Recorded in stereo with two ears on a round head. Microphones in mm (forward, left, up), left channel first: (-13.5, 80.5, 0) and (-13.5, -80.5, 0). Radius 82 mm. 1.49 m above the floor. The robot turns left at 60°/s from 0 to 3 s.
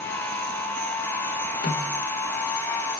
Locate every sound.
1.6 s a snare drum: 85° left, 4.5 m; by 2.0 s 65° left (ahead or behind), 4.5 m